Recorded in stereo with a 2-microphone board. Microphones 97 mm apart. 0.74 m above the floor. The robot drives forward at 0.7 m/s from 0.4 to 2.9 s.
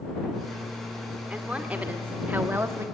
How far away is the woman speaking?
About 1.8 m.